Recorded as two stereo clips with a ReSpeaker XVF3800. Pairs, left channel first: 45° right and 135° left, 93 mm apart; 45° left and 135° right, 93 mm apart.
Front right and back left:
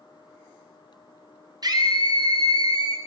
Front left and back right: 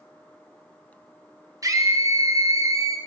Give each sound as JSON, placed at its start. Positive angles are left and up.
{"t": 1.6, "sound": "a scream", "azimuth_deg": 175, "distance_m": 0.7}